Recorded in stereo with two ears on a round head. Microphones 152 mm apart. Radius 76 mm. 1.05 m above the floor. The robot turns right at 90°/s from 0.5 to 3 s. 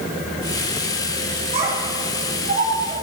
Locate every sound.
1.5 s a child speaking: 35° right (ahead or behind), 5.5 m; by 2.9 s 15° right (ahead or behind), 5.5 m